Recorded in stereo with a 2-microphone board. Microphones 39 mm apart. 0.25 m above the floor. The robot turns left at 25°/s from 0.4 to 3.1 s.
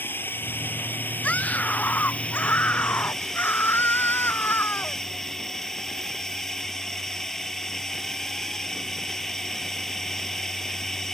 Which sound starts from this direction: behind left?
A scream, at 1.2 s.